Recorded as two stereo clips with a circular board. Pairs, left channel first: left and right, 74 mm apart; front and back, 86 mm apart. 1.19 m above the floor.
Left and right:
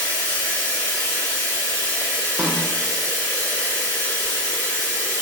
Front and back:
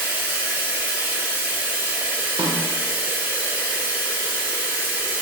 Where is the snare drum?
165° right, 0.7 m.